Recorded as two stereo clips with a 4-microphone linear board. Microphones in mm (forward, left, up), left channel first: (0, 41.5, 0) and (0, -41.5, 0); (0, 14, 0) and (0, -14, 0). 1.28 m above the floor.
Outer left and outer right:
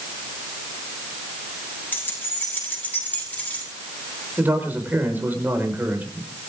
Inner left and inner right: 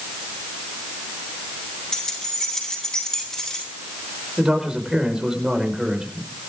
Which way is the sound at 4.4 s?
20° right (ahead or behind).